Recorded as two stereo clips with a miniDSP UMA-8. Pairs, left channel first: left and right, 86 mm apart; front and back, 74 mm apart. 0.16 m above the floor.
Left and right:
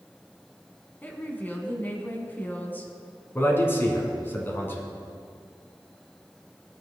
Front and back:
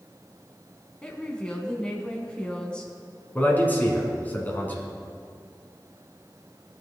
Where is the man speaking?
45° left, 1.5 m.